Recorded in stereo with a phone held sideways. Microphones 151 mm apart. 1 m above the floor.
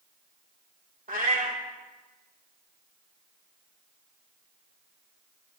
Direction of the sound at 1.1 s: 65° right (ahead or behind).